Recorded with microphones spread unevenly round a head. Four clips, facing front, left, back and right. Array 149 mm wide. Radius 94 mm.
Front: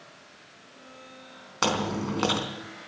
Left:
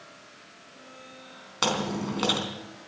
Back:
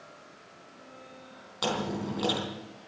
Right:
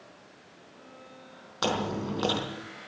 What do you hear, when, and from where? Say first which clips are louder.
1.6 s chewing: left 1 dB, front 4 dB; 40° left, 4 m